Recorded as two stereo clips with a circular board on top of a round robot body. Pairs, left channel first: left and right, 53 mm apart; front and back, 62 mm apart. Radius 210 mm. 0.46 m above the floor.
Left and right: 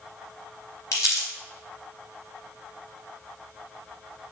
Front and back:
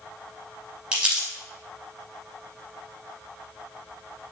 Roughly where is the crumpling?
Left.